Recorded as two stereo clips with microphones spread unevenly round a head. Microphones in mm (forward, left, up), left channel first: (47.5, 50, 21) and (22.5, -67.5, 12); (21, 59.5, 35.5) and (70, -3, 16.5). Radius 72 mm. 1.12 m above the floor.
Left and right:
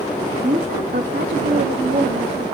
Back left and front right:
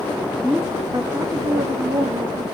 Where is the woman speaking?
140° right, 1.9 m; by 2.4 s 75° right, 3 m.